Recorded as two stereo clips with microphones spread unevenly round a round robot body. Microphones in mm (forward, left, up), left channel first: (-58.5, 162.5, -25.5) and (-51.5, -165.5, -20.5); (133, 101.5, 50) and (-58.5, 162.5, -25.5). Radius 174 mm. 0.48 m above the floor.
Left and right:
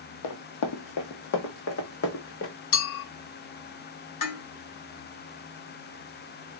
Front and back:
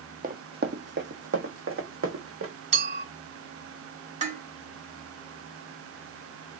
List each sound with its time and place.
0.2 s running footsteps: 100° left, 1.0 m; by 2.5 s 145° left, 1.9 m
2.7 s a clink: 120° left, 2 m
4.2 s dishes clattering: 120° left, 1.3 m